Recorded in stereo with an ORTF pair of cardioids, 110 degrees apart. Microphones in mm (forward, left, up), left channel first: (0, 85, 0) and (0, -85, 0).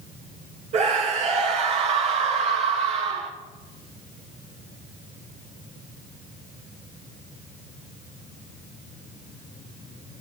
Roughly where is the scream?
Ahead right.